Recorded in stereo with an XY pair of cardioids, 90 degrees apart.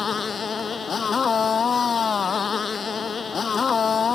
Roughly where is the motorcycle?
Ahead left.